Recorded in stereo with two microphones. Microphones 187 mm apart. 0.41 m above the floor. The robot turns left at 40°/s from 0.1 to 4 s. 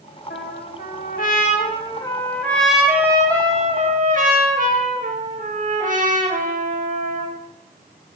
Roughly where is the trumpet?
Left.